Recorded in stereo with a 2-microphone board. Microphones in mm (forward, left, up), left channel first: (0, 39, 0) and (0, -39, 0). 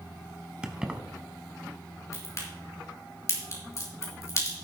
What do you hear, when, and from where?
0.6 s keys jangling: 15° right (ahead or behind), 0.9 m
2.1 s a crack: 40° left (ahead or behind), 4 m